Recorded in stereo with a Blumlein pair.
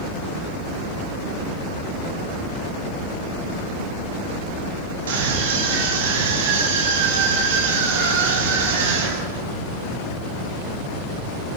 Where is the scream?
60° right, 9 m.